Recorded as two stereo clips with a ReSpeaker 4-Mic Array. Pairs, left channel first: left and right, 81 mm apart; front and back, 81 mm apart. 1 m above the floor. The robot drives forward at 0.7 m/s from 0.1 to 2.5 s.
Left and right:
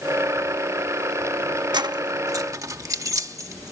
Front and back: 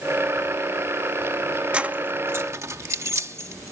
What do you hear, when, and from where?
1.7 s keys jangling: 105° right; by 3.7 s 130° right